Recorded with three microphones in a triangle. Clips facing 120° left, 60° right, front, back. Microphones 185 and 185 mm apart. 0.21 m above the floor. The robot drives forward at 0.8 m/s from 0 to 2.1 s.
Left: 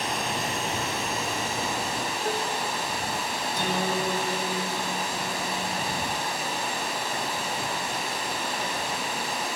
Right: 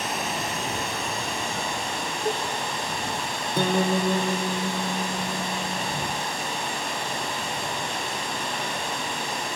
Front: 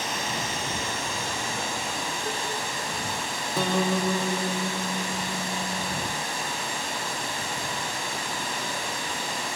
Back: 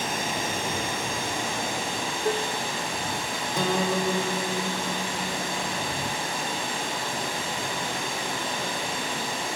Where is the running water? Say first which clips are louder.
Even, back 2 dB; 145° right, 5 m; by 9.6 s 155° right, 6.5 m.